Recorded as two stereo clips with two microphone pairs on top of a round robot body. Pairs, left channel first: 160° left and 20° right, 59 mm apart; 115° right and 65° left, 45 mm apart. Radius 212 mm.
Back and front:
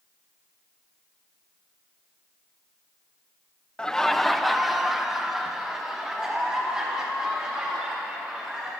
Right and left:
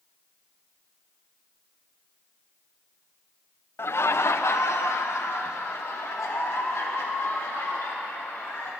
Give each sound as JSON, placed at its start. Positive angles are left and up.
{"t": 3.8, "sound": "laughter", "azimuth_deg": -125, "distance_m": 0.6}